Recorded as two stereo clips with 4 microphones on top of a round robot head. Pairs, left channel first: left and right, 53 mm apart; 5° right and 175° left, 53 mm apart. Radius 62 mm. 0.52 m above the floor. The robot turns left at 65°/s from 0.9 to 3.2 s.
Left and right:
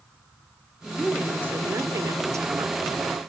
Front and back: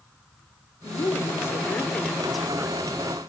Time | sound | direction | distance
0.8 | a woman speaking | straight ahead | 1.7 m